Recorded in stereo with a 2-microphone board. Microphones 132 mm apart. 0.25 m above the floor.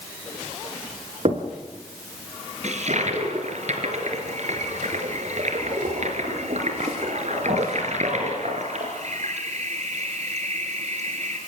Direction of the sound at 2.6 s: 60° right (ahead or behind).